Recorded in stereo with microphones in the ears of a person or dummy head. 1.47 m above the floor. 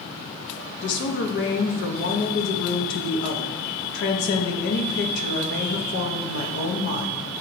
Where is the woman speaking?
65° left (ahead or behind), 0.6 m.